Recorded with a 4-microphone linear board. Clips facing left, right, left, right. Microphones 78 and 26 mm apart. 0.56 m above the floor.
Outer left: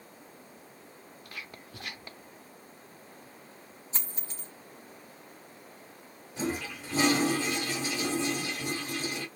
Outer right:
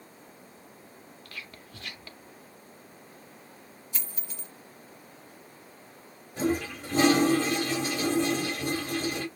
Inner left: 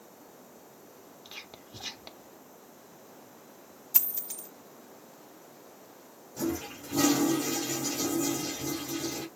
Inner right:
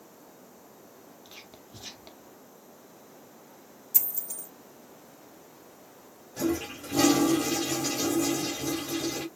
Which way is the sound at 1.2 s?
20° left (ahead or behind).